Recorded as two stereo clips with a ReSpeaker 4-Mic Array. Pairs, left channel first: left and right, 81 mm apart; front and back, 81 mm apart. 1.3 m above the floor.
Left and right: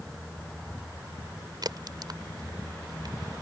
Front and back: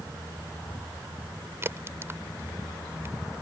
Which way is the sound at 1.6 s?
120° right.